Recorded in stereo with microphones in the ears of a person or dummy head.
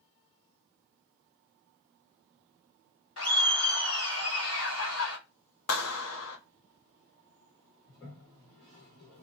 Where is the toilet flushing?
35° left (ahead or behind), 1.5 m.